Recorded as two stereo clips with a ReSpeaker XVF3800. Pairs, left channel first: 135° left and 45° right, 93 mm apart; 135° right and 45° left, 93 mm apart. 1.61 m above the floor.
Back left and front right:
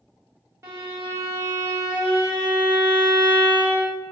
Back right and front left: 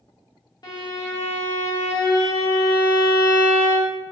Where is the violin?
100° right, 1.0 m.